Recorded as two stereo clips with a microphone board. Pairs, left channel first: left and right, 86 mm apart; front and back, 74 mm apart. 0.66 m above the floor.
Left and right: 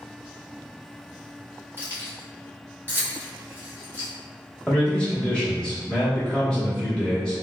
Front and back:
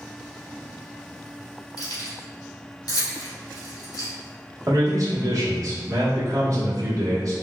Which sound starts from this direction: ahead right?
Keys jangling, at 1.8 s.